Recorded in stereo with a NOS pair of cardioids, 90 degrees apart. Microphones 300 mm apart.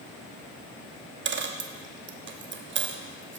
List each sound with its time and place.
1.2 s a dropped coin: 40° right, 1.0 m